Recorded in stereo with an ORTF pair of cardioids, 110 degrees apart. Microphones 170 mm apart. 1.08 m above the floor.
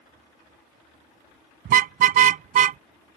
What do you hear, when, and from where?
1.6 s a car horn: 60° right; by 2.8 s 50° right